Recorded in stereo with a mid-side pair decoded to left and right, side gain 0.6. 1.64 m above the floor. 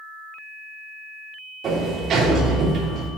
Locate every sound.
1.6 s a sliding door: 45° right, 3 m